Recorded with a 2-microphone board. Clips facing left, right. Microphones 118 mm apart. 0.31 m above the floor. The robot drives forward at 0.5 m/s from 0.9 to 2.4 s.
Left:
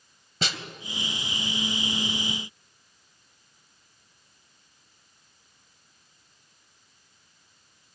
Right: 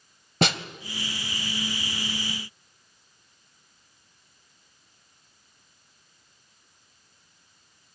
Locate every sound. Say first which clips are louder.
0.4 s a snare drum: right 9 dB; 60° right (ahead or behind), 0.6 m